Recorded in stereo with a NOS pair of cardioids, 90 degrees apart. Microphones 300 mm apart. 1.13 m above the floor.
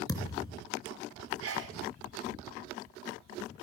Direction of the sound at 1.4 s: 50° right.